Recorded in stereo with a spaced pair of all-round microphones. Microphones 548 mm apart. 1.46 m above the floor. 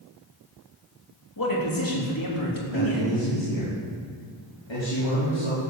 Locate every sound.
1.4 s a man speaking: 40° left (ahead or behind), 3 m
2.7 s a man speaking: 55° left (ahead or behind), 4 m